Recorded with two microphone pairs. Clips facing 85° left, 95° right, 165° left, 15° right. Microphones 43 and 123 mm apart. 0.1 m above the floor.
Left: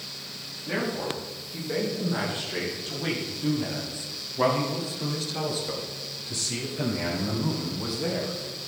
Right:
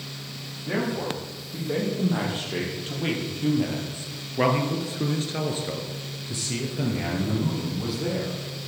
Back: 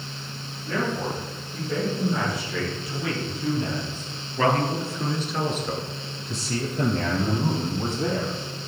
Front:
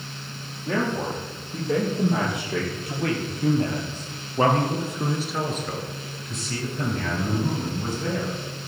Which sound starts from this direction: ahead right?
A man speaking, at 0.7 s.